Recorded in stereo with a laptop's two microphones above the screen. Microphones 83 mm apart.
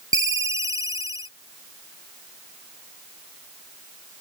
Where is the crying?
I don't hear crying.